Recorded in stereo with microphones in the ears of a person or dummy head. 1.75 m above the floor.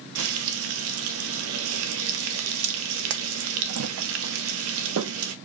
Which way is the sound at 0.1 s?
80° right.